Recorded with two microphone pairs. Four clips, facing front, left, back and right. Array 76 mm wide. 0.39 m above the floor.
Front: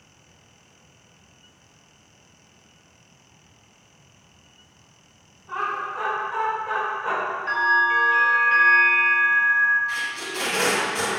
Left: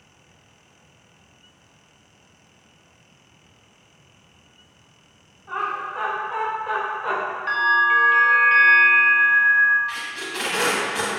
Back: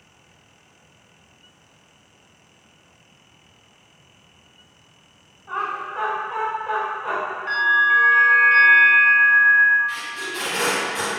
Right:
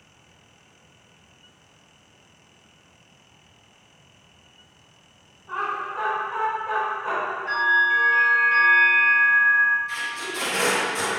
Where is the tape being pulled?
95° left, 1.5 m.